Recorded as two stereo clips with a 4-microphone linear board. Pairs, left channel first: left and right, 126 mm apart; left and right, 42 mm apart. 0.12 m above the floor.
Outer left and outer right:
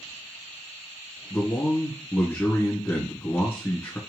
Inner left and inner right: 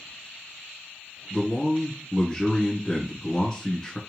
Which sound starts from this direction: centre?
A man speaking, at 1.3 s.